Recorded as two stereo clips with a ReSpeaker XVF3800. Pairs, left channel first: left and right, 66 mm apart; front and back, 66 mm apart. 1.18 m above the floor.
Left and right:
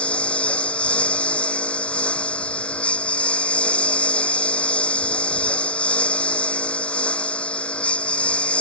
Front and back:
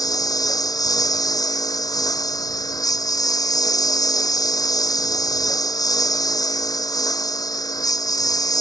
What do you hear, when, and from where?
0.0 s a lawn mower: 15° left